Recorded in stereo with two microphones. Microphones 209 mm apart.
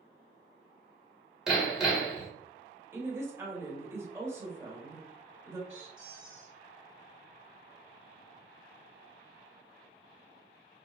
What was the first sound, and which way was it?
Hammering, centre (ahead or behind).